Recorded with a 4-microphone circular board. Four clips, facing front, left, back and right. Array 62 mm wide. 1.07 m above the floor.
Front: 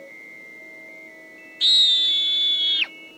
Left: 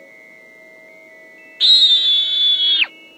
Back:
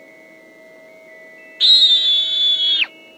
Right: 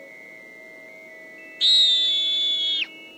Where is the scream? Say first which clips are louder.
Left 6 dB, back 5 dB; 125° left; by 2.9 s 105° left.